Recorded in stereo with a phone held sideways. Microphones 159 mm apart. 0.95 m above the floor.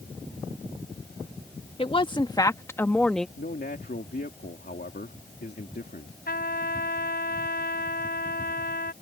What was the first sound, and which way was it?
A woman speaking, 35° left (ahead or behind).